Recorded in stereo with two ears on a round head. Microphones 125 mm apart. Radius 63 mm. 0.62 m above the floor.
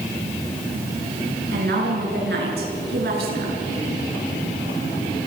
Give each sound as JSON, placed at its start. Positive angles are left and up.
{"t": 1.5, "sound": "a woman speaking", "side_deg": -85, "distance_m": 8.0}